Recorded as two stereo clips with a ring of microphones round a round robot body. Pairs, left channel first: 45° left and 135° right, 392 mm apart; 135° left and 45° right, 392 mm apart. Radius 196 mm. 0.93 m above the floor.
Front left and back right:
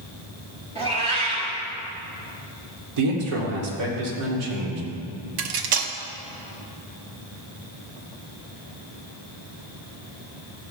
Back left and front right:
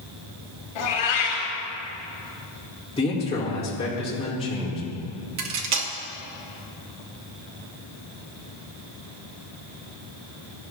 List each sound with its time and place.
0.8 s a cat meowing: 150° left, 3.5 m
3.0 s a man speaking: 150° right, 2.5 m
5.4 s cutlery clinking: 95° right, 0.8 m